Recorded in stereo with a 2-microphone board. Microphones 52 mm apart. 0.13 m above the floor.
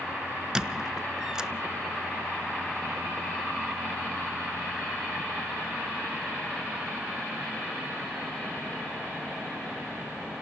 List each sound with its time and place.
0.6 s a squeak: 10° right (ahead or behind), 0.6 m